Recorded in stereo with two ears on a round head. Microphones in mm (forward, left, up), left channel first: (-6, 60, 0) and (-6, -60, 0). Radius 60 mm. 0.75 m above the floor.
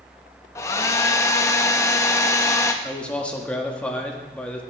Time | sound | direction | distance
0.6 | a hair dryer | 20° left (ahead or behind) | 0.6 m
2.8 | a man speaking | 10° left (ahead or behind) | 1.2 m